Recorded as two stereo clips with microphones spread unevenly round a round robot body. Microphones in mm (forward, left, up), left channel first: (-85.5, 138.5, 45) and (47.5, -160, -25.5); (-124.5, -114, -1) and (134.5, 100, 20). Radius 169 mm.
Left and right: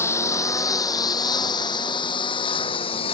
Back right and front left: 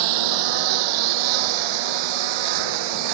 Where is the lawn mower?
35° left; by 3.1 s 40° left.